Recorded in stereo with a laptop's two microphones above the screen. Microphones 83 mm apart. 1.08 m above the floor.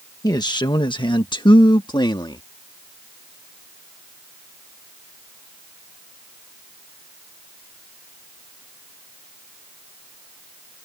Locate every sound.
0.2 s a man speaking: 50° left (ahead or behind); by 2.4 s 60° left (ahead or behind)